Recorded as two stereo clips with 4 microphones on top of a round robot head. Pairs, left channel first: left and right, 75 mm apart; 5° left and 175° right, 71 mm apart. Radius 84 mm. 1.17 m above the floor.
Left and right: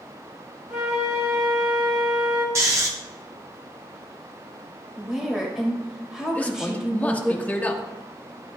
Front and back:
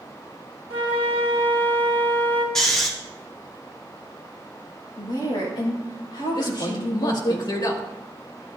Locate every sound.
0.7 s a flute: 150° right, 2.0 m
2.5 s snoring: 80° right, 0.7 m
5.0 s a woman speaking: 10° right, 5.5 m
6.3 s a man speaking: 20° left, 2.5 m